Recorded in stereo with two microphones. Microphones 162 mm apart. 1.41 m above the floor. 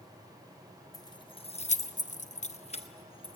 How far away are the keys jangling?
About 0.9 m.